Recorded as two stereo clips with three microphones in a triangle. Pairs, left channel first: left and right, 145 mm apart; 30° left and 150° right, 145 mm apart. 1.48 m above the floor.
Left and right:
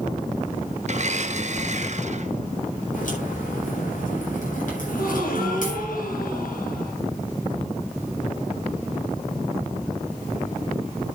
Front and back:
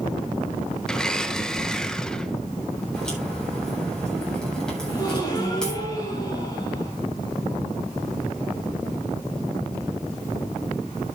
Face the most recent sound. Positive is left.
turn(degrees=95)